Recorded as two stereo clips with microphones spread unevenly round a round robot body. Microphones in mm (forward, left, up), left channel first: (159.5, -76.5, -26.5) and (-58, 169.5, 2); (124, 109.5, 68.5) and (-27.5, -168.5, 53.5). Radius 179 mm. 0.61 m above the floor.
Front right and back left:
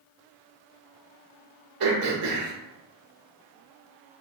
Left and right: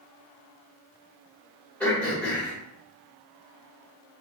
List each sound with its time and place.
1.8 s throat clearing: 150° left, 1.6 m